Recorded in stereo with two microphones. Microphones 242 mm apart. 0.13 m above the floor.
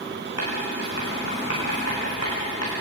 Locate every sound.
0.4 s writing: 80° left, 8 m